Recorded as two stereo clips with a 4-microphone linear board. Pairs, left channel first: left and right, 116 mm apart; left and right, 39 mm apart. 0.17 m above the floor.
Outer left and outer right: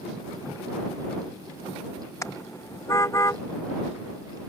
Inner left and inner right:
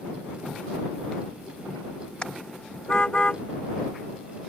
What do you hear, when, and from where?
2.2 s a car horn: 30° left (ahead or behind); by 3.4 s 25° left (ahead or behind)